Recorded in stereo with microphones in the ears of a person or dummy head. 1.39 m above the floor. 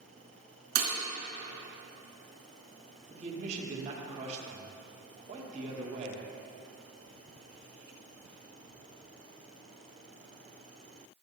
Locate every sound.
0.8 s breaking glass: 55° right (ahead or behind), 3 m
3.1 s a man speaking: 40° right (ahead or behind), 1.9 m